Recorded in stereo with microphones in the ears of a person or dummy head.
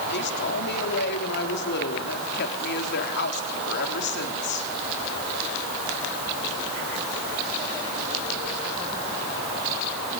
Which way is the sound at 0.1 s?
55° left (ahead or behind).